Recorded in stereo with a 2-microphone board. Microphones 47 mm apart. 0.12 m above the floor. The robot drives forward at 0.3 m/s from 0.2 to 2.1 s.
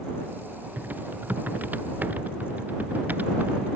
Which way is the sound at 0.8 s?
40° right (ahead or behind).